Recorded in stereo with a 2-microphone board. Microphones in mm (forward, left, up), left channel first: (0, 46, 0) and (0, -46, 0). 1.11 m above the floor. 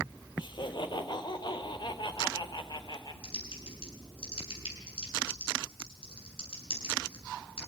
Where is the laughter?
60° left (ahead or behind), 3.5 m.